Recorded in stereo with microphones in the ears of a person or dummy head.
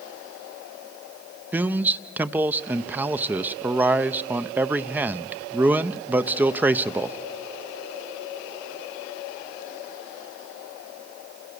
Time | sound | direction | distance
1.5 | a man speaking | 10° right (ahead or behind) | 0.7 m